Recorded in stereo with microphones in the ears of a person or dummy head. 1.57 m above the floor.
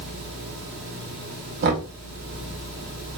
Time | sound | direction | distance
1.6 | knocking | 55° right (ahead or behind) | 0.8 m